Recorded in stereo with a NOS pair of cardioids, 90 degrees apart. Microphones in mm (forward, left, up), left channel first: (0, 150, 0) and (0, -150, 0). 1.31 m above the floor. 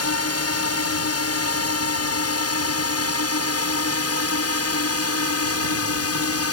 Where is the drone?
55° left.